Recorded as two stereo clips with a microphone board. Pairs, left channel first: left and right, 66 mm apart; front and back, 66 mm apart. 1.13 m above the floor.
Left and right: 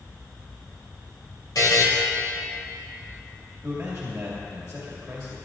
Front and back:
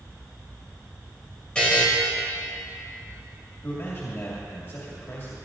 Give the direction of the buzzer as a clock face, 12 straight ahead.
10 o'clock.